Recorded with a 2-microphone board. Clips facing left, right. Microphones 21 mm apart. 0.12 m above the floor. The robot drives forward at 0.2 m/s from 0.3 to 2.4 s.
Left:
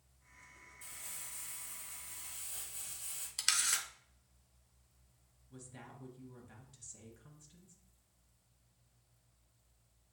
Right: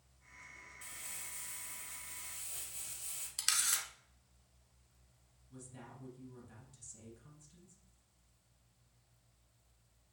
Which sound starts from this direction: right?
Crumpling, at 0.8 s.